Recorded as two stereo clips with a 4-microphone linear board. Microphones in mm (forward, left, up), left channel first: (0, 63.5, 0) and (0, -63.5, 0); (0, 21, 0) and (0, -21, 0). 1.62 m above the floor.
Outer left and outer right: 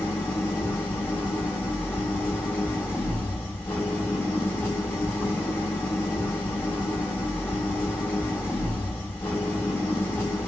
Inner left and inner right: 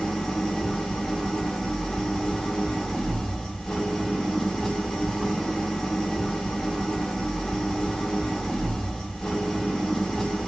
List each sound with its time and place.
0.0 s an engine running: 20° left (ahead or behind), 1.6 m